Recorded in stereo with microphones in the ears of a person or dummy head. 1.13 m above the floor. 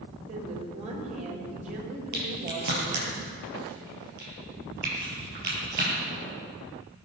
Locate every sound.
0.3 s a woman speaking: 40° right (ahead or behind), 5 m
2.1 s a crack: 55° right (ahead or behind), 4.5 m